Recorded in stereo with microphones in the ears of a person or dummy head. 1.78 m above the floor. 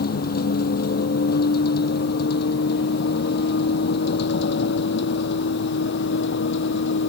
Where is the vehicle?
55° left (ahead or behind); by 7.1 s 65° left (ahead or behind).